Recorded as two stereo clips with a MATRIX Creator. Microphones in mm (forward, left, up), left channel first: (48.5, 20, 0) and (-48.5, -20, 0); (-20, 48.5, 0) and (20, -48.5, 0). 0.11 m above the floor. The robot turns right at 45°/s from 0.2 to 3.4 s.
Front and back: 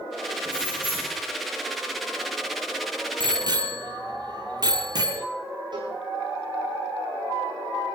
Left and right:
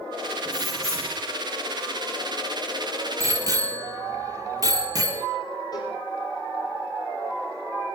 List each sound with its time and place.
0.5 s keys jangling: 25° right, 4 m; by 1.2 s 5° left, 4 m
3.2 s a bicycle bell: 125° right, 2 m; by 5.3 s 115° right, 2 m
5.7 s a cowbell: 160° left, 8 m